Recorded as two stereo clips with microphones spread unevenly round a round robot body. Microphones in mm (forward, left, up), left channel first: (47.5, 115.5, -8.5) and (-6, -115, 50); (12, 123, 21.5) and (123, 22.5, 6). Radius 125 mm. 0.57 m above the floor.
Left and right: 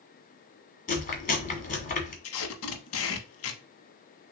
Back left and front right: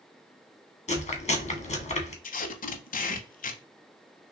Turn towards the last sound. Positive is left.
turn(degrees=115)